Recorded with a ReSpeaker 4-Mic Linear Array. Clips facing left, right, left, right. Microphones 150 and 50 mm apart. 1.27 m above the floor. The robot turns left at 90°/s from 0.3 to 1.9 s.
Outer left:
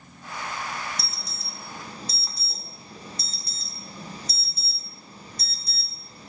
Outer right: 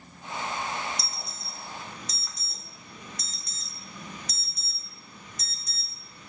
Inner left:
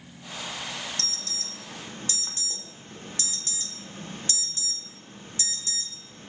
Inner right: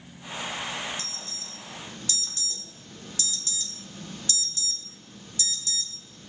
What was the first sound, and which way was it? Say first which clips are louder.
An alarm: even, inner left 2 dB; 65° left (ahead or behind).